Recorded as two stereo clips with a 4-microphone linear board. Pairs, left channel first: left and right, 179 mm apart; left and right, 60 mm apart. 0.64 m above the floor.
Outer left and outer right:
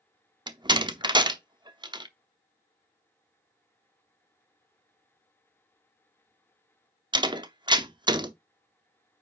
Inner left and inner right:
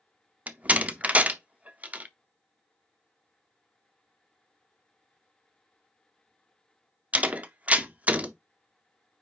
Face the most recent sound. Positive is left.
turn(degrees=-25)  # may be behind; listen again after turning